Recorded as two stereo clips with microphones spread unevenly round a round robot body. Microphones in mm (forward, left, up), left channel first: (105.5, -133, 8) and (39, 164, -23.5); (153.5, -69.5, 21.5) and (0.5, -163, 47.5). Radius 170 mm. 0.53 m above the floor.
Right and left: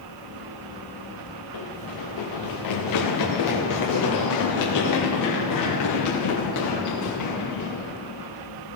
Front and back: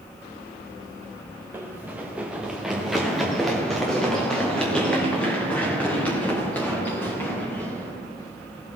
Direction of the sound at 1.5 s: 70° right.